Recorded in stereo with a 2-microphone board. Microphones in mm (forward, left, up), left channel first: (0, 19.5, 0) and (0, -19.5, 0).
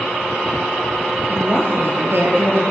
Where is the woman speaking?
55° right (ahead or behind), 7 m.